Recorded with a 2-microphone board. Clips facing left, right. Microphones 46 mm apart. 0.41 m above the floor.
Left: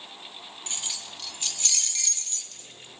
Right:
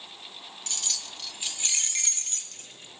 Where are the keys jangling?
25° left (ahead or behind), 0.7 m; by 3.0 s 55° right (ahead or behind), 1.2 m.